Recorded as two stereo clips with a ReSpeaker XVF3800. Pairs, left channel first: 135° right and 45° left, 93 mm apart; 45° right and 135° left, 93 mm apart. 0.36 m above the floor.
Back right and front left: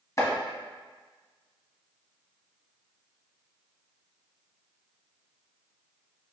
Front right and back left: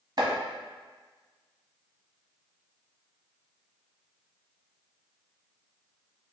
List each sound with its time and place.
0.2 s chopping: 170° left, 1.2 m